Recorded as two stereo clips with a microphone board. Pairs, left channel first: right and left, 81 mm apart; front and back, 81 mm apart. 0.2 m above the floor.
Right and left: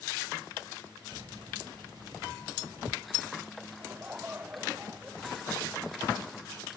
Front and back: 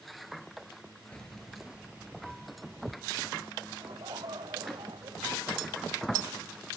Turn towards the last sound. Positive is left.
turn(degrees=160)